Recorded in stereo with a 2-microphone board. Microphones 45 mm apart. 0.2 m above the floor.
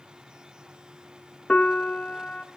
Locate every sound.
1.5 s a piano: 30° left (ahead or behind), 0.6 m